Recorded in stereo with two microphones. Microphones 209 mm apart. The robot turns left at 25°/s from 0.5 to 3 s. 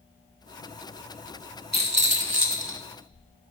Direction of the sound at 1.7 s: 45° right (ahead or behind).